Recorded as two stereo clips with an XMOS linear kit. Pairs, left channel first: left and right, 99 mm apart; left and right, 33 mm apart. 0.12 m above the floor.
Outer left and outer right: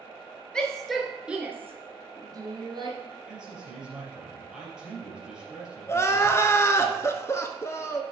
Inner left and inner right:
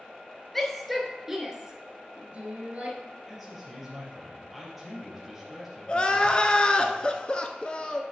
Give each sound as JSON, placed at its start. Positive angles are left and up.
{"t": 0.5, "sound": "a shout", "side_deg": 10, "distance_m": 1.6}
{"t": 3.3, "sound": "a man speaking", "side_deg": -10, "distance_m": 3.0}
{"t": 5.9, "sound": "crying", "side_deg": 30, "distance_m": 0.6}